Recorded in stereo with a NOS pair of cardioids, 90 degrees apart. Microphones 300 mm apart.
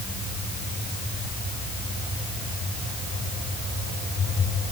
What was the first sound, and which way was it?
Only background noise.